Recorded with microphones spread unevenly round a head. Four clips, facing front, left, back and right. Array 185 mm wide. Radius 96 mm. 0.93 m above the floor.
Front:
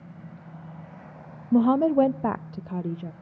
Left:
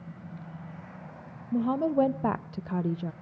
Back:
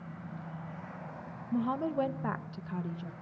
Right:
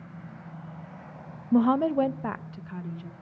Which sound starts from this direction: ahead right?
A woman speaking, at 1.5 s.